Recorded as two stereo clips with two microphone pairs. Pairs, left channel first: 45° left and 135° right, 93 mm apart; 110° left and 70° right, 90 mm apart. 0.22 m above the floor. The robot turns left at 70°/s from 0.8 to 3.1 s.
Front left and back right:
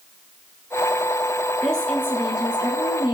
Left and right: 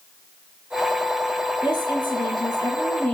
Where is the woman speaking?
135° left, 2 m; by 3.1 s 35° left, 2 m.